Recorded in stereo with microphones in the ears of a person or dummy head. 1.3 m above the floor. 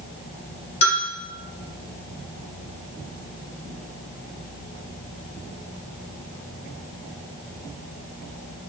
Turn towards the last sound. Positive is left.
turn(degrees=40)  # may be behind; listen again after turning